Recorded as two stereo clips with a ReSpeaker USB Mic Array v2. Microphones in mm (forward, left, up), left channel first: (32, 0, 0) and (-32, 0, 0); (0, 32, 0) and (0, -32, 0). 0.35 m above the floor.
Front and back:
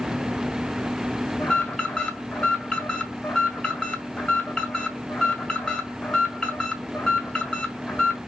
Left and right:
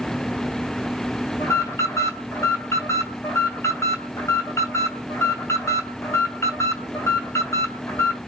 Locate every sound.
1.4 s an alarm: 75° left, 2.5 m